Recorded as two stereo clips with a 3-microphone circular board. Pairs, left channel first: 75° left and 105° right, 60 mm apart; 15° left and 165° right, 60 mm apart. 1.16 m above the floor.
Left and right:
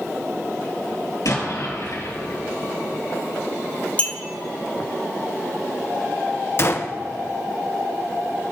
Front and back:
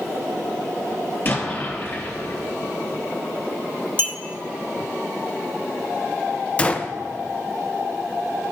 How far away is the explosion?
About 4 m.